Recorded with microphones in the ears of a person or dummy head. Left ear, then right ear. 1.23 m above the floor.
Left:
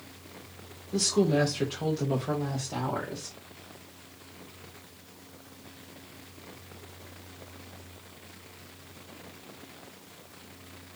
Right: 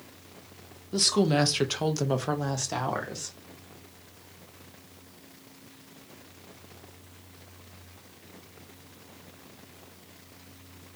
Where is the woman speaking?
30° right (ahead or behind), 0.8 m; by 3.3 s 55° right (ahead or behind), 1.5 m.